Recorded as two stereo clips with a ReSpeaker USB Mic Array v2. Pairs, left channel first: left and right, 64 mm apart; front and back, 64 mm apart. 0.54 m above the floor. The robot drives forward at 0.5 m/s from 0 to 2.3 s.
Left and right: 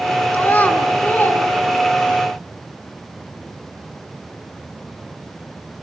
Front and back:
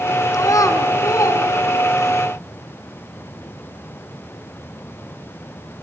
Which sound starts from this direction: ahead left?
A child speaking, at 0.3 s.